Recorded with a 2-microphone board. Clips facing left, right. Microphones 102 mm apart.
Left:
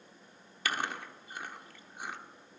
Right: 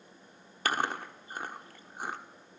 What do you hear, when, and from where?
0.7 s chewing: 45° right (ahead or behind), 1.3 m